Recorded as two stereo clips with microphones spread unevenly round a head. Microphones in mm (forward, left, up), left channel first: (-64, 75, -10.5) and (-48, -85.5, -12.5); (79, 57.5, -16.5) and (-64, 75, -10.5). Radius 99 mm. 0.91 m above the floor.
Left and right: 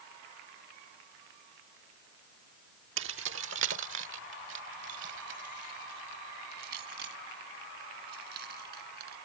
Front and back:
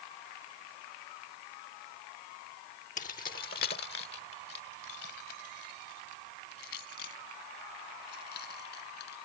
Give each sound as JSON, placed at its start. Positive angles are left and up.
{"t": 3.0, "sound": "keys jangling", "azimuth_deg": -65}